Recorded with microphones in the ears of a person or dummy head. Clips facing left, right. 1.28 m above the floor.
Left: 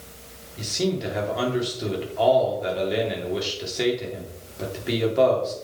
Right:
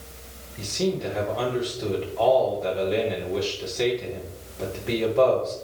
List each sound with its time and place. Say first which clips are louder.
0.6 s a man speaking: even; 15° left (ahead or behind), 3 m